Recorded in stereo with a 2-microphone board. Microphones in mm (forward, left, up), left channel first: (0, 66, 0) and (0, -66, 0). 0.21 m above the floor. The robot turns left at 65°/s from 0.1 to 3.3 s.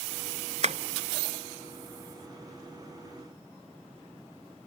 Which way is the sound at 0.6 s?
60° right (ahead or behind).